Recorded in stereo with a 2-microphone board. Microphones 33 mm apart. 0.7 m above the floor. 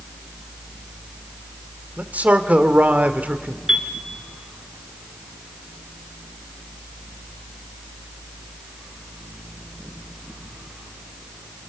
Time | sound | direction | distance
2.0 | a man speaking | 55° right (ahead or behind) | 1.7 m
3.7 | a piano | 20° right (ahead or behind) | 2.5 m